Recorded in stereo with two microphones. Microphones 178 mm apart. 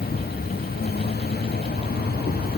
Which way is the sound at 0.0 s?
60° left (ahead or behind).